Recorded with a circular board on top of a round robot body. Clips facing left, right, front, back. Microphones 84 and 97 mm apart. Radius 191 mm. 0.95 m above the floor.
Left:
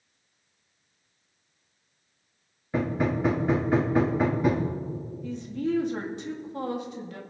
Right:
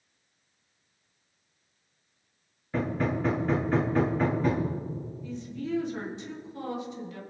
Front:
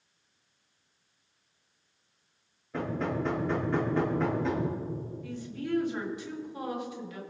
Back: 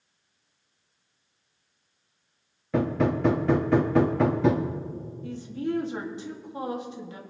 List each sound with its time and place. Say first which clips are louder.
2.7 s hammering: left 2 dB, back 7 dB; 170° left, 0.7 m
5.2 s a woman speaking: left 7 dB, back 8 dB; 120° left, 2.5 m